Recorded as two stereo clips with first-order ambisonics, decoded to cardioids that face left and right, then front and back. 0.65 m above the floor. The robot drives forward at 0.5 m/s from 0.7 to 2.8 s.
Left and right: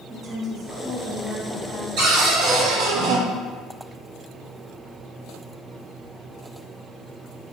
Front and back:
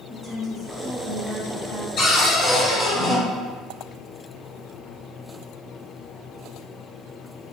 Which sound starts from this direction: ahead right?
A cupboard door, at 2.0 s.